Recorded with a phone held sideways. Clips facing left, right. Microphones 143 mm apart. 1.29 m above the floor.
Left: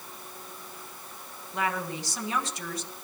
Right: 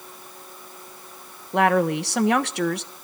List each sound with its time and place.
1.5 s a woman speaking: 70° right (ahead or behind), 1.2 m